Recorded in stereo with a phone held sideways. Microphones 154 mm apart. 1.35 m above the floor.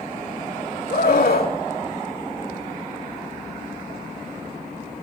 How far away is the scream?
About 4 m.